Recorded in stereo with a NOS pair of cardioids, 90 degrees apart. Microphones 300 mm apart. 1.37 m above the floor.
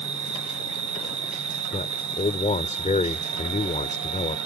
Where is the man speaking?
25° left.